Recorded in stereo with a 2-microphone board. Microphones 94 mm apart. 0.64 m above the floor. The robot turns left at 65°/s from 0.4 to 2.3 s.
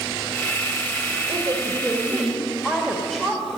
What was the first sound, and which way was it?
A woman speaking, 125° right.